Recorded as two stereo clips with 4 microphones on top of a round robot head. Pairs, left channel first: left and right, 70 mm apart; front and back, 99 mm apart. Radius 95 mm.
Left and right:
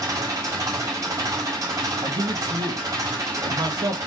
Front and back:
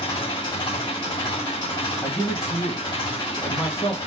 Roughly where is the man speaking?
Ahead right.